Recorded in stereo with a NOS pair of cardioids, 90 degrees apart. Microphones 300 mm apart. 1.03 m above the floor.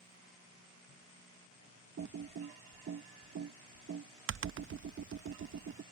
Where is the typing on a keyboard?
45° right.